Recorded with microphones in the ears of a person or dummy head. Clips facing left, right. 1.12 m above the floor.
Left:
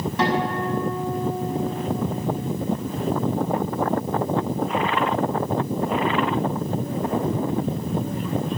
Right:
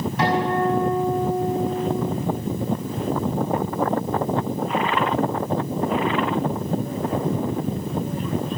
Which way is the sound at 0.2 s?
65° left (ahead or behind).